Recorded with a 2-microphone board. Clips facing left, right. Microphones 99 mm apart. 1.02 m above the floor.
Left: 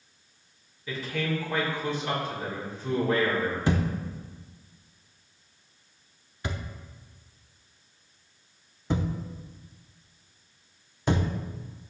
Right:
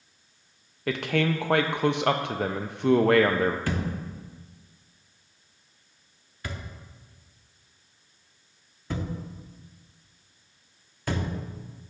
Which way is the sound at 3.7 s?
20° left (ahead or behind).